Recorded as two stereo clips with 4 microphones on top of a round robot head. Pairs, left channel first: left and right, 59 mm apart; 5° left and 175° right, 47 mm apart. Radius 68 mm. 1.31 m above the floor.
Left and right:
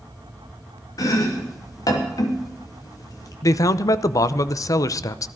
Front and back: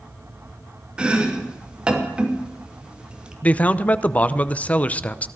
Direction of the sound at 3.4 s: 65° left.